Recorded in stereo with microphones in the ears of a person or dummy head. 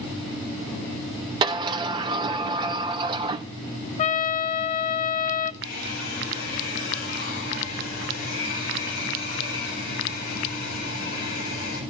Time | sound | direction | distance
1.4 | a sliding door | 25° right (ahead or behind) | 0.9 m
4.0 | a trumpet | 35° left (ahead or behind) | 0.6 m
5.6 | a hair dryer | 45° left (ahead or behind) | 4.5 m